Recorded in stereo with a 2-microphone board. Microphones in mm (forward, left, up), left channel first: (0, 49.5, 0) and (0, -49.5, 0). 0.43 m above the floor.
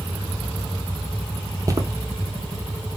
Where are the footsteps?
35° right (ahead or behind), 0.6 m.